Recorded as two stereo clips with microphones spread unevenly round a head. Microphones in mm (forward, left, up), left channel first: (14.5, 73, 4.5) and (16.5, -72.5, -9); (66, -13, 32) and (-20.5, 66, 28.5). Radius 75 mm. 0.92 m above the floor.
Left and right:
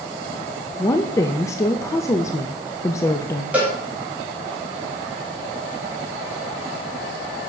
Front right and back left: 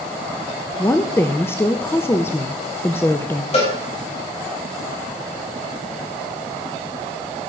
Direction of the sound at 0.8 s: 25° left.